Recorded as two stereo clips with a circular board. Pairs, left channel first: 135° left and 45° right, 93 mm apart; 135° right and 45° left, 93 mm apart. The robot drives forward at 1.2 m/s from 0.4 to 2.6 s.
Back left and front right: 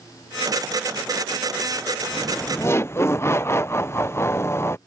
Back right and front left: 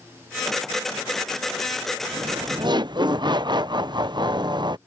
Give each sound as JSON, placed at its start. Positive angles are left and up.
{"t": 2.1, "sound": "laughter", "azimuth_deg": 40}